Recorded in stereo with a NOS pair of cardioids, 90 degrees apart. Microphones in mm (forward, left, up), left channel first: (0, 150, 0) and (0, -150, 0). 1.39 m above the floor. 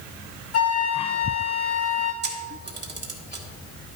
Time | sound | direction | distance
0.5 | a flute | 55° left | 1.9 m
2.2 | a camera shutter | 35° right | 2.0 m